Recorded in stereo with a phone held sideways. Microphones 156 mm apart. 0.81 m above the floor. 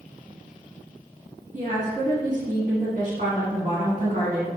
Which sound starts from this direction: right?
A woman speaking, at 1.5 s.